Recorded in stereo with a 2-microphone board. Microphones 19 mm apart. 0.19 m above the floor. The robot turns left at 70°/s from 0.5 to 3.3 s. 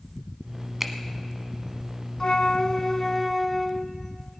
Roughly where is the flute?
Left.